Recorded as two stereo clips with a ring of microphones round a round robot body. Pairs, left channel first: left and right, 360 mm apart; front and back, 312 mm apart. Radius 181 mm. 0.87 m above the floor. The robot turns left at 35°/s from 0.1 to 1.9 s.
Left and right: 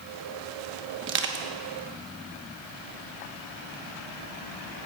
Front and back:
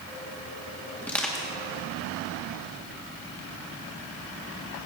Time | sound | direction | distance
1.0 | crushing | 75° right | 1.0 m